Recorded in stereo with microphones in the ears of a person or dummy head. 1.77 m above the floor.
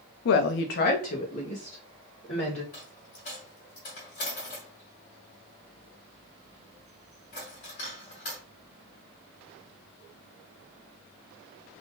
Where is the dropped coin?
25° left (ahead or behind), 1.6 m.